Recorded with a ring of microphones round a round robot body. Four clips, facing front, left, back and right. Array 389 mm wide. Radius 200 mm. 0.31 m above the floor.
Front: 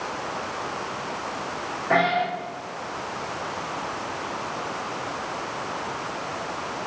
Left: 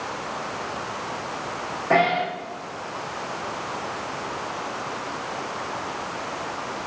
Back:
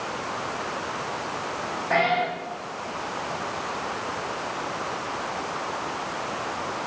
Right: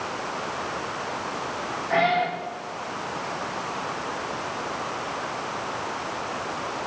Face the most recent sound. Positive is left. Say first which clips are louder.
# left 2 dB, front 1 dB
turn(degrees=70)